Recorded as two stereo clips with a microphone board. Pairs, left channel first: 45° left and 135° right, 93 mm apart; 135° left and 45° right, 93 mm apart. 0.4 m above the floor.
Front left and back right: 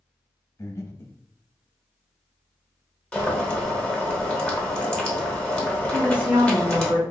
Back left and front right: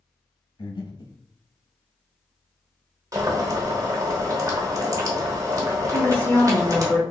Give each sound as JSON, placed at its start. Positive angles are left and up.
{"t": 0.6, "sound": "breathing", "azimuth_deg": 105, "distance_m": 0.7}
{"t": 3.1, "sound": "boiling", "azimuth_deg": -30, "distance_m": 1.0}
{"t": 5.9, "sound": "a woman speaking", "azimuth_deg": 175, "distance_m": 1.0}